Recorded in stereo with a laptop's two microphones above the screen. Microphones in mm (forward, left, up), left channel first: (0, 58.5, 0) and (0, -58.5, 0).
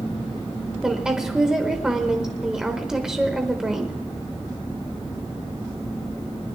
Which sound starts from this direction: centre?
A woman speaking, at 0.8 s.